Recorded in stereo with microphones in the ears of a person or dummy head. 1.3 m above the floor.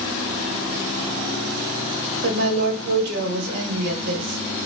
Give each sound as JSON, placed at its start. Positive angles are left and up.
{"t": 2.2, "sound": "a woman speaking", "side_deg": -60, "distance_m": 1.7}